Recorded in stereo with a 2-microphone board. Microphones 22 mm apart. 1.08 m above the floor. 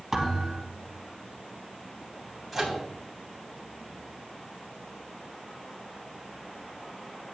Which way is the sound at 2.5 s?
Centre (ahead or behind).